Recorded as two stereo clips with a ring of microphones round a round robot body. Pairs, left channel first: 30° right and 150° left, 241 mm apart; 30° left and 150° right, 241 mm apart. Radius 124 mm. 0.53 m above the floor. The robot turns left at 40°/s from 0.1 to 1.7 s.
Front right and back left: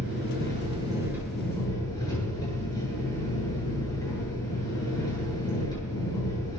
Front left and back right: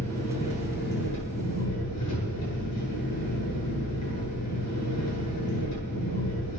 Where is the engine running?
110° left, 9 m; by 6.6 s 45° left, 9 m.